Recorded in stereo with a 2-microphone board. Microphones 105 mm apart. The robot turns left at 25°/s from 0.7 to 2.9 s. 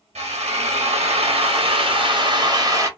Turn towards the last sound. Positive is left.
turn(degrees=-150)